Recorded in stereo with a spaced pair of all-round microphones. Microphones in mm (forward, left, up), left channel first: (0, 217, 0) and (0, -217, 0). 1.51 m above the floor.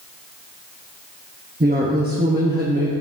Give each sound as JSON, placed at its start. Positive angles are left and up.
{"t": 1.6, "sound": "a woman speaking", "side_deg": -20, "distance_m": 0.8}